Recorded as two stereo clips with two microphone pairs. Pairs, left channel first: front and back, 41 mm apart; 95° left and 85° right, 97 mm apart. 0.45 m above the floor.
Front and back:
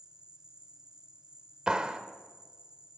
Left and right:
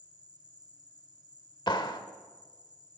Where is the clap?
115° left, 1.2 m.